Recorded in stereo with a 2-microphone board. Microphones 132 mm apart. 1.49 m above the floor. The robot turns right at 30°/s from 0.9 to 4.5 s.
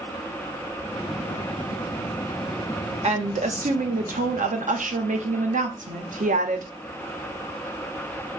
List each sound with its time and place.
3.0 s a woman speaking: 125° right, 0.6 m; by 6.7 s 80° right, 0.6 m